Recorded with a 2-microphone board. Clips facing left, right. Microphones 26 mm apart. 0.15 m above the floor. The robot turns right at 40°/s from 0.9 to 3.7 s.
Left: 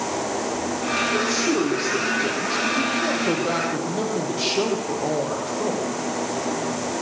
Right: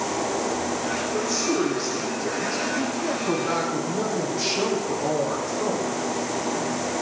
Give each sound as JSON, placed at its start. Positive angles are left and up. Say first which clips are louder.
{"t": 1.1, "sound": "a woman speaking", "louder": "even", "azimuth_deg": 40, "distance_m": 5.5}